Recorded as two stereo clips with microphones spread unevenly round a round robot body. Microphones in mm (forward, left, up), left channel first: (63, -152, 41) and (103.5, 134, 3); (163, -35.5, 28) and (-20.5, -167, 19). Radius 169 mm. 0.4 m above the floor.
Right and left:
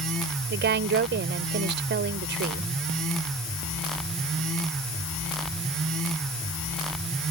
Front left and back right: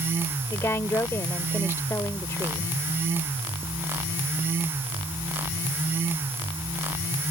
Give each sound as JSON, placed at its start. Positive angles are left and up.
{"t": 0.5, "sound": "a woman speaking", "azimuth_deg": 115}